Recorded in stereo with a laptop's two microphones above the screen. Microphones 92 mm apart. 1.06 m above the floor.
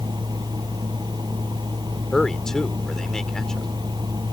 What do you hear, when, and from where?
0.0 s a fan: 50° right (ahead or behind)
2.1 s a man speaking: 5° left (ahead or behind)